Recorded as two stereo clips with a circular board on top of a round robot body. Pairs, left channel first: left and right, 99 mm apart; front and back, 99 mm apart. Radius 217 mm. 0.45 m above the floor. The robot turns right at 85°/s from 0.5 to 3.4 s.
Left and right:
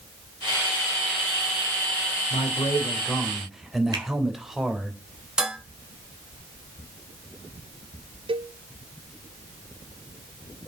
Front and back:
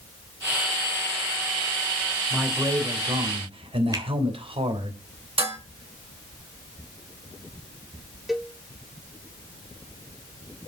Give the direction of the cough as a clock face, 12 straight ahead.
No cough in this recording.